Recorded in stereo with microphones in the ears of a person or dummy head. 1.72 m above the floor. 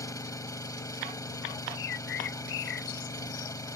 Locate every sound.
0.0 s an engine running: 20° left (ahead or behind)
1.8 s a bird: 70° left (ahead or behind)